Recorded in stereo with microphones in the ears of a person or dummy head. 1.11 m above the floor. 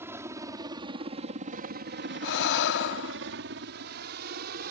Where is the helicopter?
10° right (ahead or behind); by 4.7 s 55° right (ahead or behind).